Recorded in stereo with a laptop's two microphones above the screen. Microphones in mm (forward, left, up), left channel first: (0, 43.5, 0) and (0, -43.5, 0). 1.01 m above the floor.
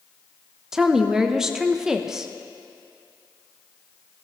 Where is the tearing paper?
No tearing paper in this recording.